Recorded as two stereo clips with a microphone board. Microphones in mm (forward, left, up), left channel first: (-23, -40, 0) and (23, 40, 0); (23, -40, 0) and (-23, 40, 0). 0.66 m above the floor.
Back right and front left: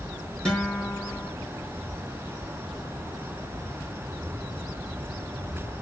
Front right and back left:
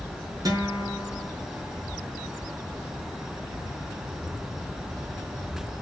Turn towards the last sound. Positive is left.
turn(degrees=160)